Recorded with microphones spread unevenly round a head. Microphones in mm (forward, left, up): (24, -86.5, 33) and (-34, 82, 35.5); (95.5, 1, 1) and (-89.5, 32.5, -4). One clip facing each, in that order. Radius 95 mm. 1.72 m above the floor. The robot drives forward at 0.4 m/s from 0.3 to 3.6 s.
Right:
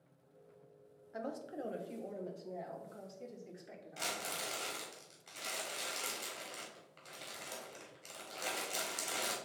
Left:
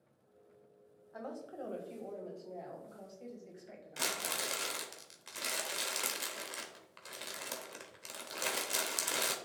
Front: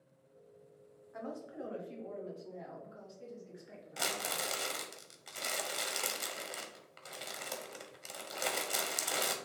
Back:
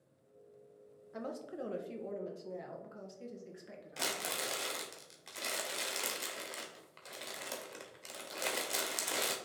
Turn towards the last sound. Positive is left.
turn(degrees=80)